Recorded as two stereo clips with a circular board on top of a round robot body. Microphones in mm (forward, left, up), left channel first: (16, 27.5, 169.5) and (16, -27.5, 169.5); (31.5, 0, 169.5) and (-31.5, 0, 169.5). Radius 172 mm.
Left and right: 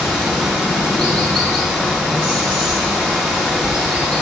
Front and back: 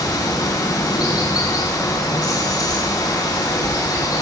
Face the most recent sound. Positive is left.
turn(degrees=-20)